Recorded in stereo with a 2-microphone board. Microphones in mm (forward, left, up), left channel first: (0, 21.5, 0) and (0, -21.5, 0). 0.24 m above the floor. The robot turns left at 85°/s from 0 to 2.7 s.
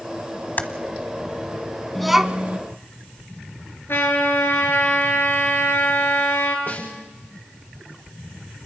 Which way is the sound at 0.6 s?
45° left (ahead or behind).